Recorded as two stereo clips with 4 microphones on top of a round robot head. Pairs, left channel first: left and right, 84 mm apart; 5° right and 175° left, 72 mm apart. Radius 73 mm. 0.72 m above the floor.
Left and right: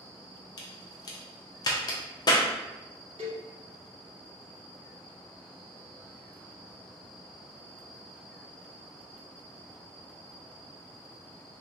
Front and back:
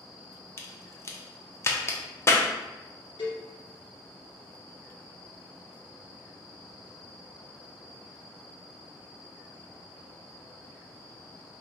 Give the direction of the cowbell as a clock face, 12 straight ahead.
1 o'clock.